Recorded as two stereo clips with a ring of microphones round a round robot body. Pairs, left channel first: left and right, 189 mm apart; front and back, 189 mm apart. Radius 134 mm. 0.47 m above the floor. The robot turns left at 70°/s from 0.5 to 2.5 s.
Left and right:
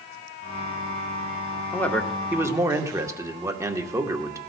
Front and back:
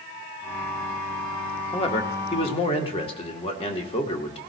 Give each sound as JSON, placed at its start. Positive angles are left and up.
{"t": 1.7, "sound": "a man speaking", "azimuth_deg": 25, "distance_m": 1.1}